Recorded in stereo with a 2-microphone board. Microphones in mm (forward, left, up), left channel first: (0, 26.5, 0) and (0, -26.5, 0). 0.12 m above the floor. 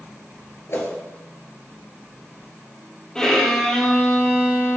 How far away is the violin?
About 2.5 m.